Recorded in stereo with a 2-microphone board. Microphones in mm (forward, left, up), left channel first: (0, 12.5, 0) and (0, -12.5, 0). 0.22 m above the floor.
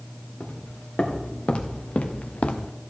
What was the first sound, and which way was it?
Footsteps, 55° left (ahead or behind).